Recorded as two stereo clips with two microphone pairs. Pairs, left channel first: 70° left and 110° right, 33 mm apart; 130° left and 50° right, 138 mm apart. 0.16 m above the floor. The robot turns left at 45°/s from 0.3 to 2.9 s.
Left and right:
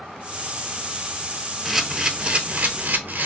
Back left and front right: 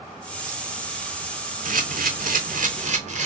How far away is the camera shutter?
About 0.5 m.